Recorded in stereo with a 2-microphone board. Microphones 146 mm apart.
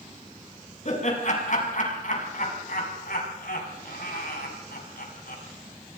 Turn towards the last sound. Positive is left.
turn(degrees=85)